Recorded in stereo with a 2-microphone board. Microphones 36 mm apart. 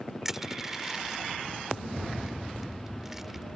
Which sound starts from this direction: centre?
Crushing, at 0.2 s.